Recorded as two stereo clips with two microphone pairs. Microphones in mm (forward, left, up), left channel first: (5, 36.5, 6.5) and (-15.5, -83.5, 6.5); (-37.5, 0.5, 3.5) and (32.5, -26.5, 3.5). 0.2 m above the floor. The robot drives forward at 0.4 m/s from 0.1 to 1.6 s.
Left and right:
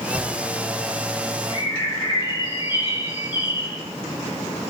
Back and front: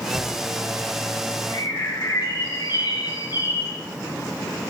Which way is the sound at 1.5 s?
130° left.